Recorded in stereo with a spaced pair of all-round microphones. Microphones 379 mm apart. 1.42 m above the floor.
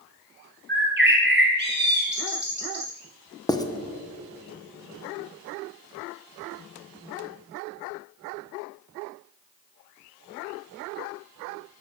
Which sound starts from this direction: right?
A bird, at 0.7 s.